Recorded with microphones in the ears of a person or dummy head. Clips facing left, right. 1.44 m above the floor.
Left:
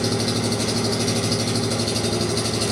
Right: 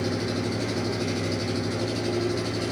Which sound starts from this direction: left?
An engine running, at 0.0 s.